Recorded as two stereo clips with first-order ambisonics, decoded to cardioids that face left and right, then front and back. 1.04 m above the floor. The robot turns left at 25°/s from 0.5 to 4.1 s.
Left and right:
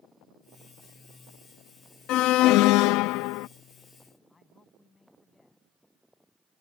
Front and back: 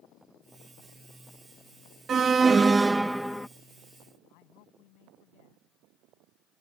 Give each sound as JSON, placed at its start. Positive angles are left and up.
{"t": 2.1, "sound": "an alarm", "azimuth_deg": 120}
{"t": 4.3, "sound": "a man speaking", "azimuth_deg": 15}